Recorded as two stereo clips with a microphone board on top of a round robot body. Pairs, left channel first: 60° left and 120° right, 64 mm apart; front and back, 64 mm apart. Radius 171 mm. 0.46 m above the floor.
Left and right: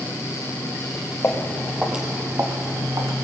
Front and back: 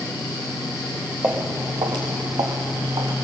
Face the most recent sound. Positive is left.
turn(degrees=-160)